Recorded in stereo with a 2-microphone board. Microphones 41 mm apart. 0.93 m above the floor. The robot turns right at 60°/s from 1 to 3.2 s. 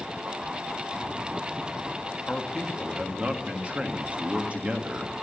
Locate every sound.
2.3 s a man speaking: 155° left, 1.6 m; by 5.1 s 150° right, 1.6 m